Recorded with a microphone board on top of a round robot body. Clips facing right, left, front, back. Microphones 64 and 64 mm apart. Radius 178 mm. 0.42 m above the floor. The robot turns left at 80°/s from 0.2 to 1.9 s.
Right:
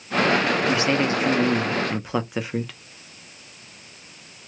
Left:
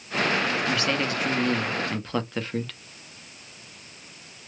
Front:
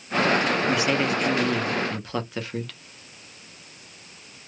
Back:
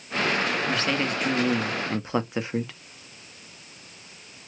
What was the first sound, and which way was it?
A man speaking, 50° right.